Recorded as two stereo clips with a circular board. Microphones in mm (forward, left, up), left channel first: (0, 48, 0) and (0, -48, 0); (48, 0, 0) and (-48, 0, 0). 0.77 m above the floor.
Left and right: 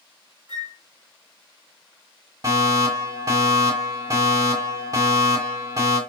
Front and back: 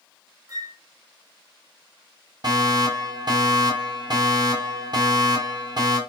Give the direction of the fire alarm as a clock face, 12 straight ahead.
5 o'clock.